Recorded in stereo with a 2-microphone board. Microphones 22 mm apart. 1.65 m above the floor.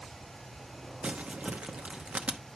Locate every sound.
1.0 s crumpling: 60° right (ahead or behind), 0.8 m